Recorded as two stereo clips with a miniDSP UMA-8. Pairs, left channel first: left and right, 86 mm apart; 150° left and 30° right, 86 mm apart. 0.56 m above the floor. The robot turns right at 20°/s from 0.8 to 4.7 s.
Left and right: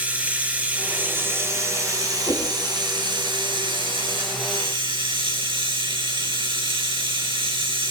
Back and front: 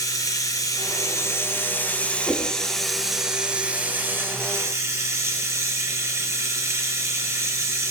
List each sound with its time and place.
0.0 s running water: 165° right, 3 m; by 7.9 s 85° right, 3 m
2.3 s a whoosh: 60° left, 4 m; by 2.5 s 65° left, 4 m